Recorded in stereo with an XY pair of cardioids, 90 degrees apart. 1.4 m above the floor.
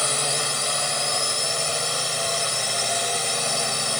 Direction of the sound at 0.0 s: 15° left.